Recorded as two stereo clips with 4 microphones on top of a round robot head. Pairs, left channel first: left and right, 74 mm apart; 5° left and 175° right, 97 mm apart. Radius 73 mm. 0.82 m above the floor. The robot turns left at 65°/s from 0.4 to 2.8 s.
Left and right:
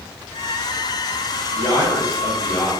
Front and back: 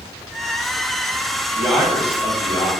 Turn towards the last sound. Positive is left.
turn(degrees=30)